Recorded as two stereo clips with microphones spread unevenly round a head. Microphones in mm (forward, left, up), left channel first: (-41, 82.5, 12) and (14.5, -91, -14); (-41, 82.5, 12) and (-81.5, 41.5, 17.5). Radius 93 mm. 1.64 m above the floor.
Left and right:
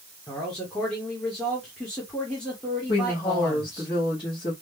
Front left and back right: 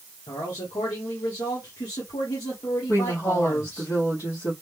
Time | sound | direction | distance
0.3 | a man speaking | 25° left | 1.1 m
2.9 | a woman speaking | 45° left | 1.5 m